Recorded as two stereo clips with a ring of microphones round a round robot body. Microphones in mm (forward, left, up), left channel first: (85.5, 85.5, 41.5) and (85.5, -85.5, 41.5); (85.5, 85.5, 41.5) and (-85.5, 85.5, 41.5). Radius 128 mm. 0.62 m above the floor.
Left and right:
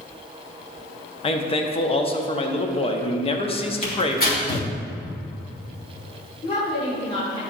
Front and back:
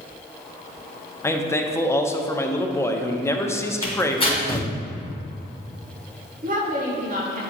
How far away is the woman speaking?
About 1.9 m.